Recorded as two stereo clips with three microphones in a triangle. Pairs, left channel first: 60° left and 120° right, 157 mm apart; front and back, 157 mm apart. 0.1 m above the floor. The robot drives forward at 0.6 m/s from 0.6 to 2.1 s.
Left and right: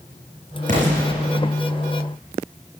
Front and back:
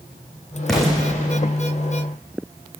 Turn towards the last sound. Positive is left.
turn(degrees=-95)